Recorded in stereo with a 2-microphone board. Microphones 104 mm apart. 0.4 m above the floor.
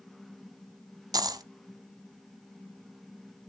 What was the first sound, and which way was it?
A dropped coin, 40° right (ahead or behind).